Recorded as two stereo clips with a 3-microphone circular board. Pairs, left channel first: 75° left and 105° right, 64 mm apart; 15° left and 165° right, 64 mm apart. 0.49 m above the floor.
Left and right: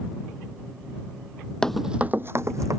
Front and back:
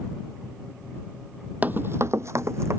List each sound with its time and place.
1.6 s running footsteps: 145° left; by 2.8 s 125° right